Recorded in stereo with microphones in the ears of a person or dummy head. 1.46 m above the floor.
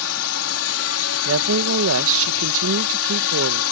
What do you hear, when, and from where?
0.0 s a drone: 75° left (ahead or behind)
1.2 s a woman speaking: 80° right